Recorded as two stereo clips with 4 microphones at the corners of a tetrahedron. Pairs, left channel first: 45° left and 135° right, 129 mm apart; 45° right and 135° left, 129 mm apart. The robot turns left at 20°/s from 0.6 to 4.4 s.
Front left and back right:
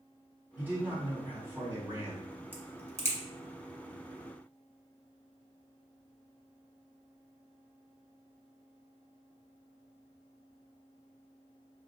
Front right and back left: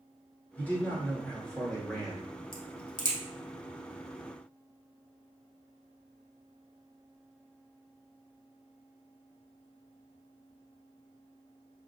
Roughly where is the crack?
Ahead right.